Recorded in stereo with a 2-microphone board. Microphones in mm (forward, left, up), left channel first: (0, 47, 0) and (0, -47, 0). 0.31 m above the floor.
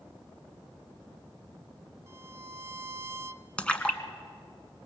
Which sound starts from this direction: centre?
A splash, at 3.6 s.